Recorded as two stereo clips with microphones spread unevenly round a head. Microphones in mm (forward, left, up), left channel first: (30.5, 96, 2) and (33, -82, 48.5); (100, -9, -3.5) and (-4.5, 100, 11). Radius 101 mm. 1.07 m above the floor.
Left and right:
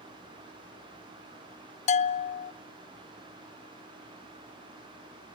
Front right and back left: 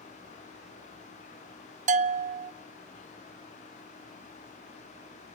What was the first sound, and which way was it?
A bell, 105° left.